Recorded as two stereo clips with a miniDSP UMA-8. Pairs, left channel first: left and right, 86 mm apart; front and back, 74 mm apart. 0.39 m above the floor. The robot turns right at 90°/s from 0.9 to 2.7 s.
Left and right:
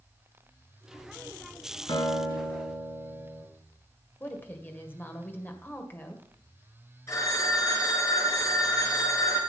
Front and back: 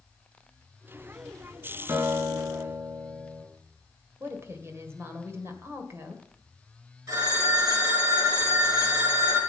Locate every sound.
1.9 s a guitar: 135° left, 4 m; by 3.4 s 155° right, 4 m
4.2 s a woman speaking: 145° left, 1.9 m
7.1 s a phone ringing: 140° left, 4.5 m